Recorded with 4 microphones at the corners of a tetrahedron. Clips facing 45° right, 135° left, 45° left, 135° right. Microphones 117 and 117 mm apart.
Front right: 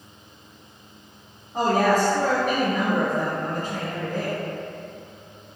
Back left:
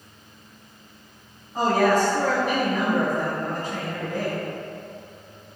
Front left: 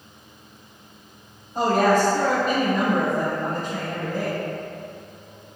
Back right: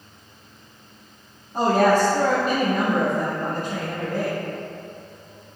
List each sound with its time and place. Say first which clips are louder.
1.5 s a woman speaking: even, back right 1 dB; 105° right, 1.7 m